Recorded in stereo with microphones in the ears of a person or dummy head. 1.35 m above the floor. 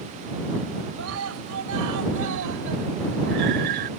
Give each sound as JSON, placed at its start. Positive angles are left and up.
{"t": 1.0, "sound": "a scream", "side_deg": -85}